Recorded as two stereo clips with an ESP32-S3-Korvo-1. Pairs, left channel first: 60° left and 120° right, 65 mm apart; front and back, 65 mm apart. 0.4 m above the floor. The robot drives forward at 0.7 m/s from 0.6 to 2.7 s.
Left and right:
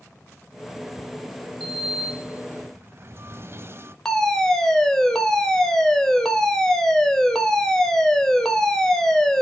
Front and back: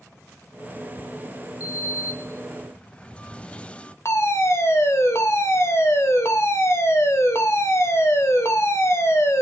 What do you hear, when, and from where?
1.6 s a sliding door: 30° right, 1.1 m; by 4.0 s 75° right, 0.6 m
4.0 s a fire alarm: 20° right, 3 m